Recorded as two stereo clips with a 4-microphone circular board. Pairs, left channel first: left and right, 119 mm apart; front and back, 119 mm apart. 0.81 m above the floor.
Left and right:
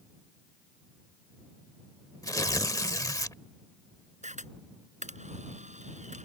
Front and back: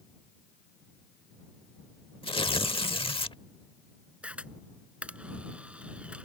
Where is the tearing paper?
35° left.